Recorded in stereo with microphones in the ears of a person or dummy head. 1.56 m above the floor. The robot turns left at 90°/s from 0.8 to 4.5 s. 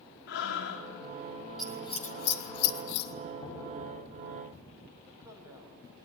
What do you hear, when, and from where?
0.3 s breathing: 65° left (ahead or behind), 2 m; by 0.9 s 70° left (ahead or behind), 2 m
1.6 s scissors: centre (ahead or behind), 1.0 m; by 3.1 s 45° left (ahead or behind), 1.0 m
3.4 s knocking: 25° left (ahead or behind), 9 m; by 3.6 s centre (ahead or behind), 9 m
5.0 s a man speaking: 15° right (ahead or behind), 4.5 m